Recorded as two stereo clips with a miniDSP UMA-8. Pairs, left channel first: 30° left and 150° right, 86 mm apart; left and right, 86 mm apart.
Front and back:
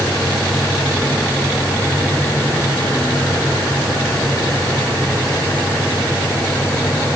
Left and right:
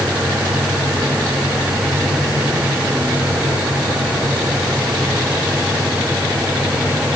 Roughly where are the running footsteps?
I don't hear running footsteps.